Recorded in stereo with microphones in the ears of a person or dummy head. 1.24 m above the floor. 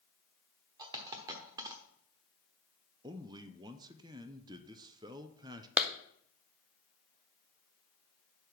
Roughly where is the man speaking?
Centre.